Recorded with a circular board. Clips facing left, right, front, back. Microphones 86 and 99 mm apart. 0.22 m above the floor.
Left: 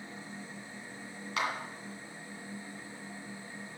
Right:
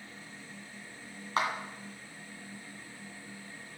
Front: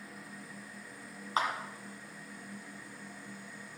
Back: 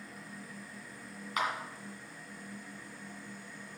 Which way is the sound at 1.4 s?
50° right.